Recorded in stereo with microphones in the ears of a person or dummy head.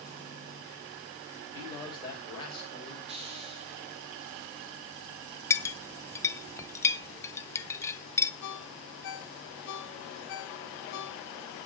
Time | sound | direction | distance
1.5 | a man speaking | 20° left (ahead or behind) | 6 m
3.1 | a hiss | 30° right (ahead or behind) | 3.5 m
5.5 | a clink | 15° left (ahead or behind) | 0.5 m
8.4 | a ringtone | 55° left (ahead or behind) | 1.1 m